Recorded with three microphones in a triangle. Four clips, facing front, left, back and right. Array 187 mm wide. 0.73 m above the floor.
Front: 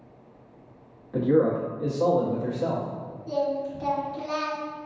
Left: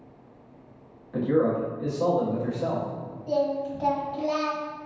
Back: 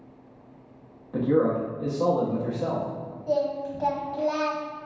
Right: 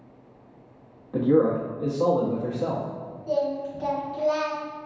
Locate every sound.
1.1 s a man speaking: 120° right, 0.9 m
3.3 s singing: 160° left, 1.3 m